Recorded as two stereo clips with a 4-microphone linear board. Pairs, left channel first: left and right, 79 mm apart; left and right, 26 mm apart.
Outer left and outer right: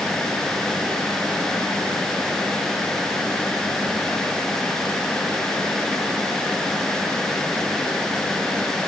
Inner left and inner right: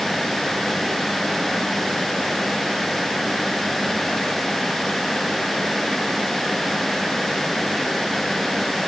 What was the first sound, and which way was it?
Only background noise.